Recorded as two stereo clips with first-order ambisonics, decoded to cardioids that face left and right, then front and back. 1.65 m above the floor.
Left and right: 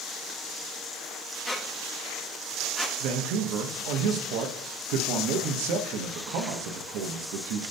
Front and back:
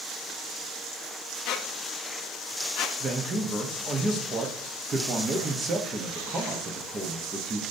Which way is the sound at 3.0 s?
110° right.